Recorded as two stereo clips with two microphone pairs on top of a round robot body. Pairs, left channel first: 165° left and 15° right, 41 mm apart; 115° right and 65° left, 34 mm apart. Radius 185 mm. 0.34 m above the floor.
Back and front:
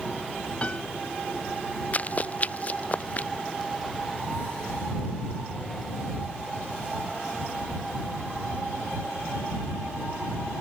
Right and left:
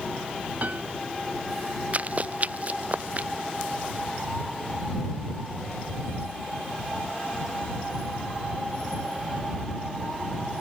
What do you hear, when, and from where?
0.6 s a piano: 105° left
1.9 s running footsteps: 115° left; by 3.3 s 110° left